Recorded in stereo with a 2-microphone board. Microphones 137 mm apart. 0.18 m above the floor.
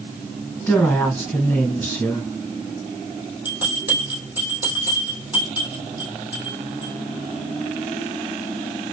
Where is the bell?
10° right (ahead or behind), 2.5 m.